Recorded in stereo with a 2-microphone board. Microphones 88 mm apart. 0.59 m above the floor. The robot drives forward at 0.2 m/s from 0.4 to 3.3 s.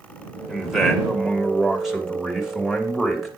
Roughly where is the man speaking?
Centre.